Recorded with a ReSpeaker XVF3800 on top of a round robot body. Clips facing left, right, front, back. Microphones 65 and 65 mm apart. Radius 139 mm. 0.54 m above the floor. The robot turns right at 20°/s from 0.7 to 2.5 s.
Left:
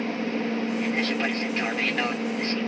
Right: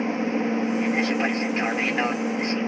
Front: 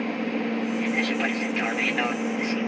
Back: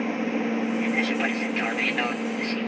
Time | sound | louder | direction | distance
0.0 | an aircraft | right 3 dB, back 1 dB | 105° right | ?